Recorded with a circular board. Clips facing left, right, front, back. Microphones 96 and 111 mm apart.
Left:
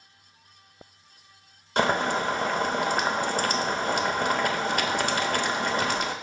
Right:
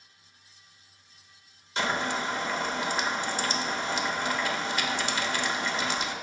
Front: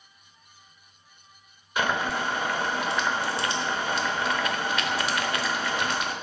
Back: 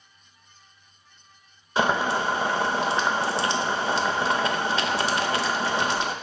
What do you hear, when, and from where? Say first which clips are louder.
1.8 s boiling: left 5 dB, back 4 dB; 120° left, 0.7 m